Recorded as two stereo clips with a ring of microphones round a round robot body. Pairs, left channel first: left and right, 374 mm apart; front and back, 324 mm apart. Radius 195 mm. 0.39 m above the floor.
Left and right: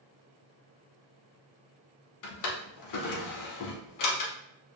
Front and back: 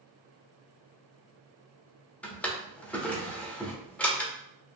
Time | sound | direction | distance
2.2 | a drawer | 85° left | 0.7 m